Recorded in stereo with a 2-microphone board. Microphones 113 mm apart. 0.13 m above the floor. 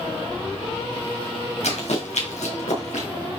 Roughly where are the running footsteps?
Left.